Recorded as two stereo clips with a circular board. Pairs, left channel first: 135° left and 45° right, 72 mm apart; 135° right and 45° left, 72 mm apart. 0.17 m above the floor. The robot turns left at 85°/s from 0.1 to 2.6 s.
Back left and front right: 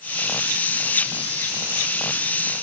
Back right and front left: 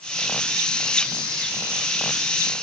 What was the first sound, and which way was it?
Only background noise.